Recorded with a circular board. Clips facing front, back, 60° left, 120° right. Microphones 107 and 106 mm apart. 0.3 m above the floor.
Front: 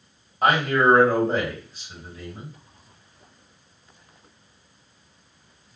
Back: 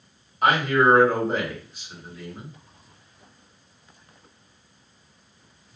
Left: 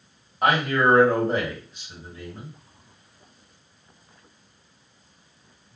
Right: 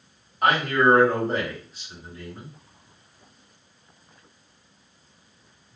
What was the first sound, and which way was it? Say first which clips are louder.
A man speaking: even, right 1 dB; 20° left.